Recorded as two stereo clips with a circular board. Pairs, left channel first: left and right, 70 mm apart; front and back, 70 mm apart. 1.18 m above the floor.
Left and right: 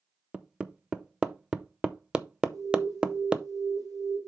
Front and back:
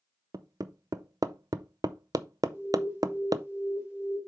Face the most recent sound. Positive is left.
turn(degrees=-120)